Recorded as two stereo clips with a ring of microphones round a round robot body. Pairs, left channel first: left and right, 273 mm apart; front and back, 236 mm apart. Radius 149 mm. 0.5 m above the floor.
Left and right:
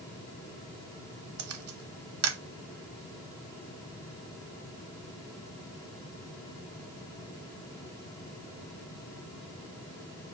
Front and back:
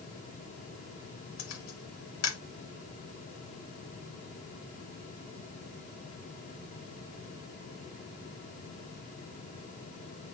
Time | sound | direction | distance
1.4 | a camera shutter | 45° right | 0.7 m